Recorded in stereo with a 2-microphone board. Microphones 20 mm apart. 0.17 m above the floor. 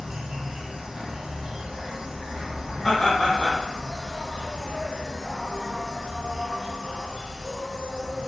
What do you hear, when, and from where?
0.0 s an insect: 45° right (ahead or behind), 0.7 m
2.8 s laughter: 25° left (ahead or behind), 1.3 m